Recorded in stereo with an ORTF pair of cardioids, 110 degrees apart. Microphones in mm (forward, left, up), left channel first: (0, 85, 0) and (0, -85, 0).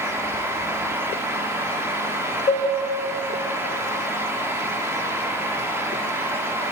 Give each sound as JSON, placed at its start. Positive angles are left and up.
{"t": 0.0, "sound": "a fan", "azimuth_deg": -15, "distance_m": 1.2}
{"t": 2.5, "sound": "dishes clattering", "azimuth_deg": 40, "distance_m": 3.0}